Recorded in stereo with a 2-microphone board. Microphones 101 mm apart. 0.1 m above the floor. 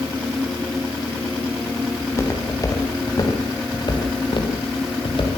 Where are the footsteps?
30° left (ahead or behind), 6 m; by 5.4 s 60° left (ahead or behind), 6.5 m.